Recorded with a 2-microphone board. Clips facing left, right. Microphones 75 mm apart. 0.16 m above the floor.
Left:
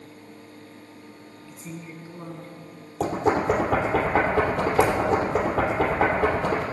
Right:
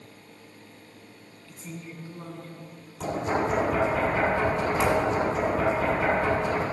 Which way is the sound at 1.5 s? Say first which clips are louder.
Left 1 dB; 5° left (ahead or behind).